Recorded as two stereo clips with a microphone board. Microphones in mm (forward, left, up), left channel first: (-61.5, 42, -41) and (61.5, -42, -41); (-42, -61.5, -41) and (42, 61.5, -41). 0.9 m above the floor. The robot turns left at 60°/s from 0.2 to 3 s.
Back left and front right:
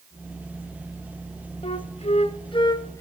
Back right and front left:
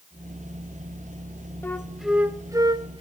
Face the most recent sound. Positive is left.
turn(degrees=85)